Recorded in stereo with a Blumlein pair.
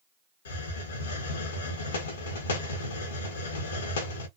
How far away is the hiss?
About 0.8 m.